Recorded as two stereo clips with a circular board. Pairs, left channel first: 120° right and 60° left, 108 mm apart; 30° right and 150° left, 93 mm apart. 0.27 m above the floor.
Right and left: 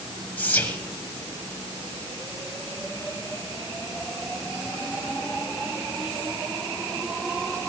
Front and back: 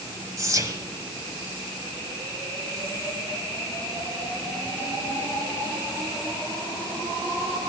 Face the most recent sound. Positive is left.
turn(degrees=175)